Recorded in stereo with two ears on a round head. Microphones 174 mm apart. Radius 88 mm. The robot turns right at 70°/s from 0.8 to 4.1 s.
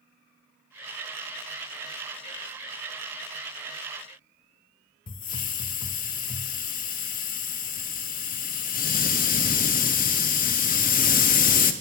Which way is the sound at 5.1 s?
45° left (ahead or behind).